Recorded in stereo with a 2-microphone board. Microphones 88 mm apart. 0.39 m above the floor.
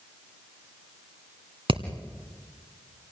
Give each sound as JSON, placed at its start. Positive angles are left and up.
{"t": 1.7, "sound": "hammering", "side_deg": -80, "distance_m": 1.8}